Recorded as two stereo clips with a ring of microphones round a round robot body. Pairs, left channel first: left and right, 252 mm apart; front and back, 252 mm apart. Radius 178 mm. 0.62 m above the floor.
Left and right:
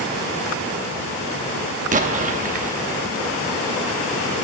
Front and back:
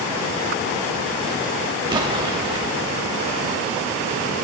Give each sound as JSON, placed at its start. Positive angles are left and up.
{"t": 1.9, "sound": "an explosion", "azimuth_deg": -120, "distance_m": 0.8}